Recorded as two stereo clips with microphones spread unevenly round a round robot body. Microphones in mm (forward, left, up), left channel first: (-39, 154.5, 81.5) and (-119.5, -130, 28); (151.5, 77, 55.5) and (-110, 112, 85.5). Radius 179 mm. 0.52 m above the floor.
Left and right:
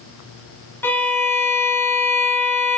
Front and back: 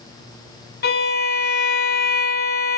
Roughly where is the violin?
Ahead.